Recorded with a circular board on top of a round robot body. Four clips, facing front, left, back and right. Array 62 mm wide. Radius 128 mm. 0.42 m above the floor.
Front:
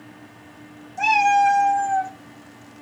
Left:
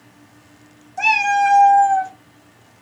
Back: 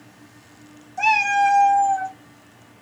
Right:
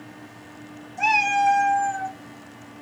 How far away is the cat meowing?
About 1.4 m.